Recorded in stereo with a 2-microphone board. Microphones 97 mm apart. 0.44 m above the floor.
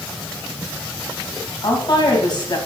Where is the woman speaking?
45° left (ahead or behind), 2.5 m.